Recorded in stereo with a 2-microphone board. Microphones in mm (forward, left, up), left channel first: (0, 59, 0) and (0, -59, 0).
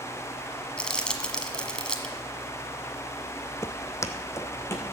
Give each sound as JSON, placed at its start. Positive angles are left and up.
{"t": 0.8, "sound": "crumpling", "side_deg": 5, "distance_m": 1.4}
{"t": 3.6, "sound": "footsteps", "side_deg": 25, "distance_m": 0.5}